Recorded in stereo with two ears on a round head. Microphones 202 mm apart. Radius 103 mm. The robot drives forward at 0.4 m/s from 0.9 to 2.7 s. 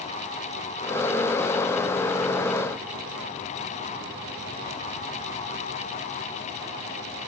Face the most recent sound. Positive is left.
No sound to turn to.